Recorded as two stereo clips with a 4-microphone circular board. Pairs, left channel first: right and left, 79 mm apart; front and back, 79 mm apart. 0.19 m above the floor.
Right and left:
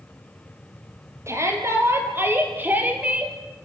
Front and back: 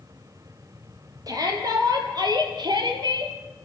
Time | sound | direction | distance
1.3 | a shout | 145° left | 5.5 m